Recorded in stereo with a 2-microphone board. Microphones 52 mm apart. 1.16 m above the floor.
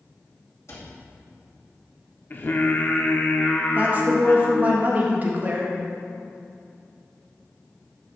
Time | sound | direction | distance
0.7 | a cupboard door | 60° left (ahead or behind) | 2.5 m
2.3 | singing | 40° left (ahead or behind) | 0.8 m
3.8 | a woman speaking | 30° right (ahead or behind) | 1.5 m